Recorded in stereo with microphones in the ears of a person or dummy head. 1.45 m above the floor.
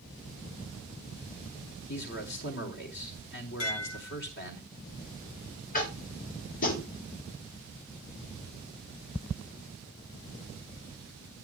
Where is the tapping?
40° left (ahead or behind), 4 m.